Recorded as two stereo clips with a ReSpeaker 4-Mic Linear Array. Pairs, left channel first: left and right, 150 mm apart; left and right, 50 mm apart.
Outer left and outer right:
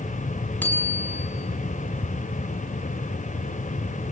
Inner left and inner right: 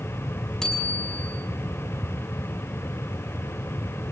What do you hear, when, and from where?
0.6 s a bicycle bell: 10° left (ahead or behind), 6 m